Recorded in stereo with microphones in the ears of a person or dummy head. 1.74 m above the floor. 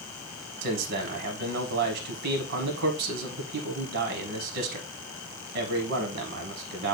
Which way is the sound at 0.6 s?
65° right (ahead or behind).